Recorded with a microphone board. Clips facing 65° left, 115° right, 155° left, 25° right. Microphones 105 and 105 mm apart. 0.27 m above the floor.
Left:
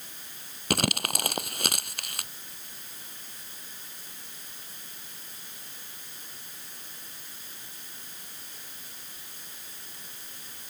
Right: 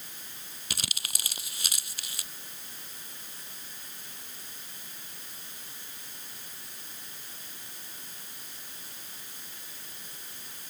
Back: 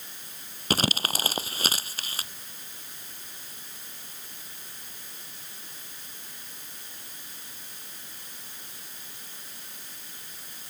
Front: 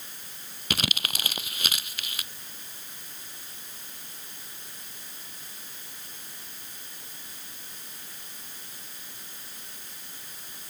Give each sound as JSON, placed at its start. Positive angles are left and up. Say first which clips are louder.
{"t": 0.7, "sound": "crumpling", "louder": "left 14 dB, back 5 dB", "azimuth_deg": 100}